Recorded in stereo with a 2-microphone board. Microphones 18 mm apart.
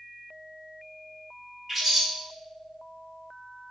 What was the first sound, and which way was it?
A bird, centre (ahead or behind).